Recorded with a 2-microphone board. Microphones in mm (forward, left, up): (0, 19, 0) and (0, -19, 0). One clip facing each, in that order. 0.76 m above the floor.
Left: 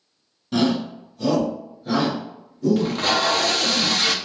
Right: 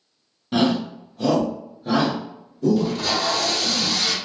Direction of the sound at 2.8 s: 50° left (ahead or behind).